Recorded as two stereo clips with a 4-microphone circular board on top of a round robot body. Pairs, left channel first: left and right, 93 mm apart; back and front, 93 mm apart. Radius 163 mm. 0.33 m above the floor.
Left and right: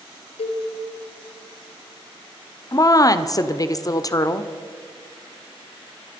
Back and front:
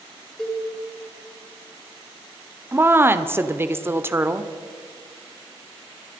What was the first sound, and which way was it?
A cowbell, 95° left.